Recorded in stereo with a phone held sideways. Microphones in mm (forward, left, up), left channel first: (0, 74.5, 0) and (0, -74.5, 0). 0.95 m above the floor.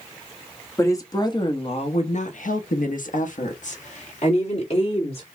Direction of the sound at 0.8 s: 20° left (ahead or behind).